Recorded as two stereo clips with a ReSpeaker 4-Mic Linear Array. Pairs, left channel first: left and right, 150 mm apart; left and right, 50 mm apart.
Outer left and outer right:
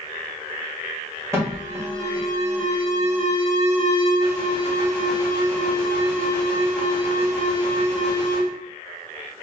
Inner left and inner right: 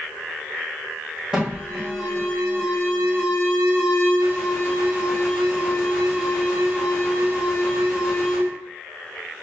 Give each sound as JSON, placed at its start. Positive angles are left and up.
{"t": 1.3, "sound": "an alarm", "side_deg": -20, "distance_m": 1.7}